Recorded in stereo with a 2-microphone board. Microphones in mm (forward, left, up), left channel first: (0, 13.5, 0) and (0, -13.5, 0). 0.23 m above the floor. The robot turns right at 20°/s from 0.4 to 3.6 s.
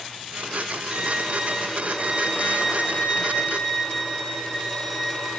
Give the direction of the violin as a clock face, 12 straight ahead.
2 o'clock.